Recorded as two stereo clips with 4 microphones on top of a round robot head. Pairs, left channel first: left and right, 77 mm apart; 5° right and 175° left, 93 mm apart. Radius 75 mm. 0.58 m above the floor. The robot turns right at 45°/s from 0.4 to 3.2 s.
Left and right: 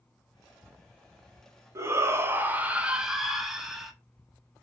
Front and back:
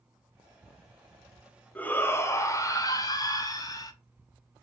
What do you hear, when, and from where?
1.8 s a shout: 70° right, 1.0 m; by 3.9 s 5° right, 1.0 m